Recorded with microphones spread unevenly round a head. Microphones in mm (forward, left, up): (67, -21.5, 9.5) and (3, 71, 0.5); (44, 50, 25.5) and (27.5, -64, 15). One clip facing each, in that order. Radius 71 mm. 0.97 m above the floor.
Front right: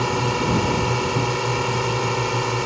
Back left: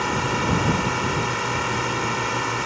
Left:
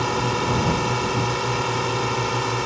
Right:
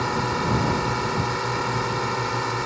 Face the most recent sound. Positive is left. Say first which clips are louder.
# front right 2 dB, left 2 dB
turn(degrees=5)